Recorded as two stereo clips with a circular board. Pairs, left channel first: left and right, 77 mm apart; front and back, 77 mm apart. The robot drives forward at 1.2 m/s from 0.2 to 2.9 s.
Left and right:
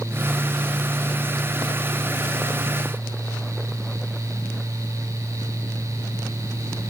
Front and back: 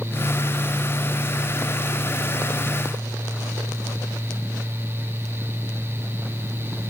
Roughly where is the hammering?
I don't hear hammering.